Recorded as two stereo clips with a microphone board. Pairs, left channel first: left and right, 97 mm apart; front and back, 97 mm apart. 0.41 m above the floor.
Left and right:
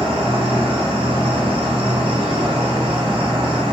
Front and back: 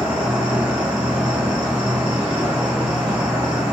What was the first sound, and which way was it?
An insect, 100° right.